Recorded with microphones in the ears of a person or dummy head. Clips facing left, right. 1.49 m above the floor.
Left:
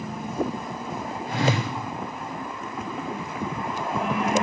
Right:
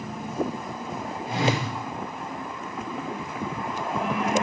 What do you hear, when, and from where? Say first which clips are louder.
1.3 s a whoosh: left 1 dB; 15° right (ahead or behind), 0.9 m